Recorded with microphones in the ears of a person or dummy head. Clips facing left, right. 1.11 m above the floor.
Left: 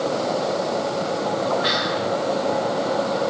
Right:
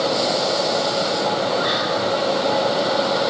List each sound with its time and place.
1.6 s whispering: 30° left (ahead or behind), 0.8 m